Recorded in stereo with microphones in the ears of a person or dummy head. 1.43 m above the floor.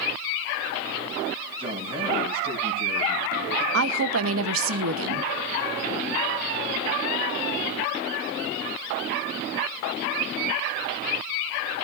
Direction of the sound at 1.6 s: 35° right (ahead or behind).